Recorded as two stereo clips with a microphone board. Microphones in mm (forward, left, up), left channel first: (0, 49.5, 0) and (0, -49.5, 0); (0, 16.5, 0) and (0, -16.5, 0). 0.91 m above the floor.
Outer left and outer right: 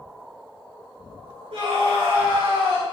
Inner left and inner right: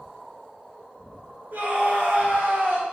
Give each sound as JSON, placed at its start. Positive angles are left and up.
{"t": 1.5, "sound": "a scream", "side_deg": -80, "distance_m": 3.5}